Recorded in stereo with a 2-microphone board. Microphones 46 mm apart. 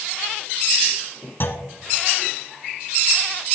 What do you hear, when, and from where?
1.4 s a clunk: 50° left (ahead or behind), 0.9 m